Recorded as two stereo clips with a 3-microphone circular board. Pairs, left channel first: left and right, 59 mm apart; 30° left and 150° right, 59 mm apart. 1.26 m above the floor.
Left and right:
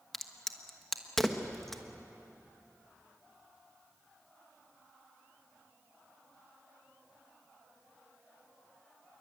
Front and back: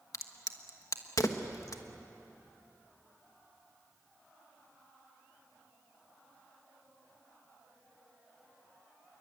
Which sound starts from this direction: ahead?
A crack, at 0.1 s.